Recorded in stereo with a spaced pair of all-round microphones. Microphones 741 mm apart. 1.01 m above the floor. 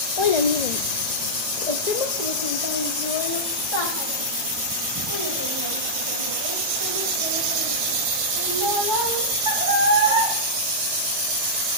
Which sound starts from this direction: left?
A child speaking, at 0.2 s.